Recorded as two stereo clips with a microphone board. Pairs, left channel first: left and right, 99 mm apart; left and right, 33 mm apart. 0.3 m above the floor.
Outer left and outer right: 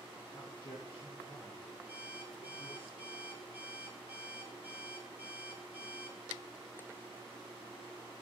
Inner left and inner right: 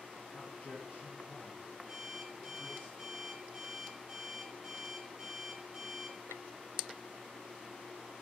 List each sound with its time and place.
0.3 s a man speaking: 70° left (ahead or behind), 3 m; by 2.9 s 60° left (ahead or behind), 3 m
1.9 s an alarm clock: 20° right (ahead or behind), 1.5 m